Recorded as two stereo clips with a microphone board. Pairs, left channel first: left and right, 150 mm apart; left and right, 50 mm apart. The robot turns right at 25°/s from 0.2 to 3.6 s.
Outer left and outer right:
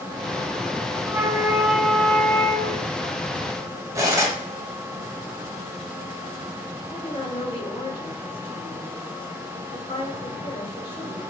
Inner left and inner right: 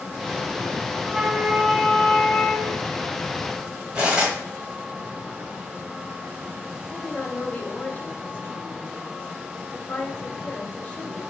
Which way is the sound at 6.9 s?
35° left (ahead or behind).